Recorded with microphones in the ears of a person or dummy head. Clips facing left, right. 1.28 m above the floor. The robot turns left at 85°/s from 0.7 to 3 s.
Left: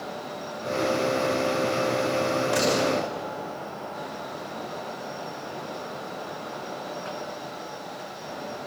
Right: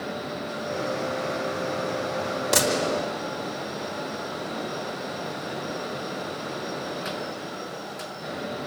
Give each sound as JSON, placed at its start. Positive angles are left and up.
{"t": 2.5, "sound": "a gunshot", "azimuth_deg": -125, "distance_m": 5.0}